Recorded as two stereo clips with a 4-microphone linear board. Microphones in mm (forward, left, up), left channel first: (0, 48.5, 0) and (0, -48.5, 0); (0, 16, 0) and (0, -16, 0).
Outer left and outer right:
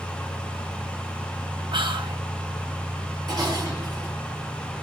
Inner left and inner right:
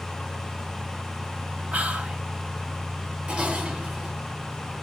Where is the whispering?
55° right (ahead or behind), 3.5 m.